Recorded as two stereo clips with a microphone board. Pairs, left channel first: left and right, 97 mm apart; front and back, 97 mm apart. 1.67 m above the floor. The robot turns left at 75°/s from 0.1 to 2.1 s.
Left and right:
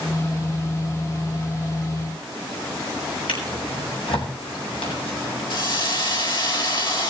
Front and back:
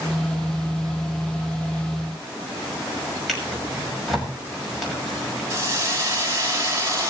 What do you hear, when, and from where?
3.3 s a drawer: 90° left, 6.5 m
5.5 s a hiss: 120° left, 4.5 m